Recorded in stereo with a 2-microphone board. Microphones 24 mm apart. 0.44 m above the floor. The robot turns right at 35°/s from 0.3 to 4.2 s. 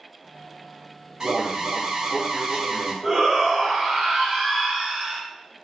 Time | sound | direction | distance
1.2 | an alarm | 110° right | 0.5 m
3.0 | a shout | 125° right | 1.6 m